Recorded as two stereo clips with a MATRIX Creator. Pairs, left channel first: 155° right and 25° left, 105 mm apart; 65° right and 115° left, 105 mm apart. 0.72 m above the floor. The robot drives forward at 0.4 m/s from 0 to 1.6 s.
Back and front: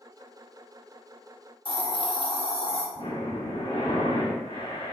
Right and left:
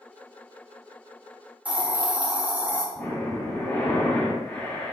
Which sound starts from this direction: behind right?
Breathing, at 3.0 s.